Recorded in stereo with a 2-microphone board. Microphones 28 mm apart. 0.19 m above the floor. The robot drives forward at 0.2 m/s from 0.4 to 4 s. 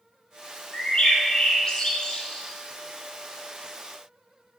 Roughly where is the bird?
Left.